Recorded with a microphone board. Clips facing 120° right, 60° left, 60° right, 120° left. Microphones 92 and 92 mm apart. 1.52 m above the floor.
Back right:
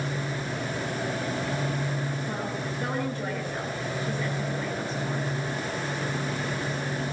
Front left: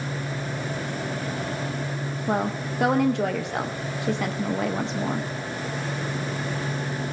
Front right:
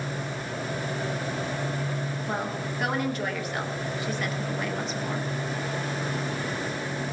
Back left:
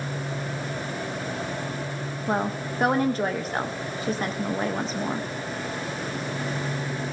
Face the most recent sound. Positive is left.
turn(degrees=65)